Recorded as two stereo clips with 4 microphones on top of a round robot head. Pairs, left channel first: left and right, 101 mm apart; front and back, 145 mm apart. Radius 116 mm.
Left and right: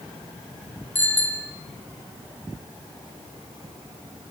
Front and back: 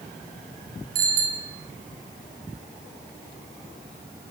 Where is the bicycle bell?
160° left, 3 m.